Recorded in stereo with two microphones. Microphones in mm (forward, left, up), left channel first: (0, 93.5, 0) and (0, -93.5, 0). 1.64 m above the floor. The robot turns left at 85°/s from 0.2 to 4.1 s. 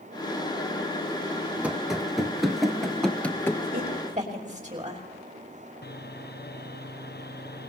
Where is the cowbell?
No cowbell in this recording.